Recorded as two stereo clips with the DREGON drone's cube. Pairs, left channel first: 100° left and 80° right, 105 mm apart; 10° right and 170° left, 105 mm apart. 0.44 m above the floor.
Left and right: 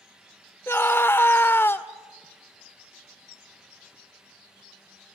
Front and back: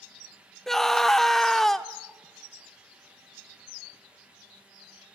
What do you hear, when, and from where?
0.7 s a scream: 70° left, 0.8 m